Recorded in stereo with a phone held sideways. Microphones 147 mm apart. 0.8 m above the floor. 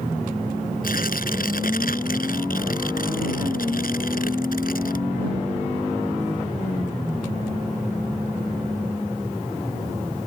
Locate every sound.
0.8 s tearing paper: 75° left (ahead or behind)